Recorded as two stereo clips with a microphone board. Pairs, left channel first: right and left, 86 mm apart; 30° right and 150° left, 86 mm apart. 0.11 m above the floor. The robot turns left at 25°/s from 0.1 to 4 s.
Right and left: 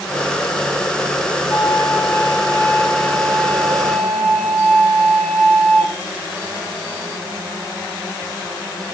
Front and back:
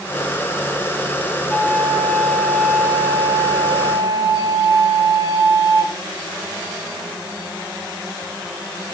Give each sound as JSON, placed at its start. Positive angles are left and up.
{"t": 1.5, "sound": "a flute", "azimuth_deg": -105, "distance_m": 1.8}